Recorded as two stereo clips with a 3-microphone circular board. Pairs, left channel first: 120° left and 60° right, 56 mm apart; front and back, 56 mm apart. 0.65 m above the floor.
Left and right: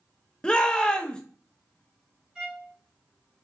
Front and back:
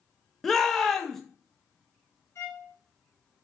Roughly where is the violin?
Ahead.